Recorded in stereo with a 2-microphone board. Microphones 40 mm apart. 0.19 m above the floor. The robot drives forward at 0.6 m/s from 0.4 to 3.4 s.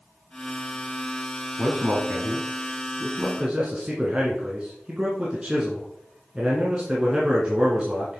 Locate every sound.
1.6 s a man speaking: 35° right (ahead or behind), 1.2 m; by 8.2 s 20° right (ahead or behind), 1.8 m